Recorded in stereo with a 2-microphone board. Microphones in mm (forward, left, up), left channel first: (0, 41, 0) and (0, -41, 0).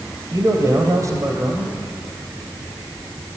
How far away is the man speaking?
About 2.5 m.